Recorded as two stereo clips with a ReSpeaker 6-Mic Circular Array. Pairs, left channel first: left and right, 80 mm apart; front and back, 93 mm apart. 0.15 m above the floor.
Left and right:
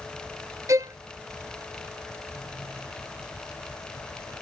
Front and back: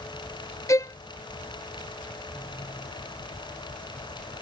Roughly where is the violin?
Ahead right.